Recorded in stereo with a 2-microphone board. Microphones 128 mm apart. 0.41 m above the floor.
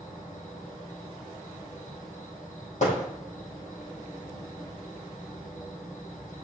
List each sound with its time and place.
0.0 s an insect: 85° left, 3.5 m
2.8 s hammering: 70° left (ahead or behind), 5.5 m